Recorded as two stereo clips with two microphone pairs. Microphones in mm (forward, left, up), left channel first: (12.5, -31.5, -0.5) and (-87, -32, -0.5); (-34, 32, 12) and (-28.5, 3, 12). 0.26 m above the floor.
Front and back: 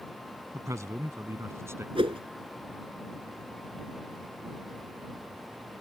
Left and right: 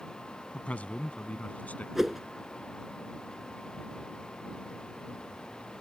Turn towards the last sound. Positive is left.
turn(degrees=-160)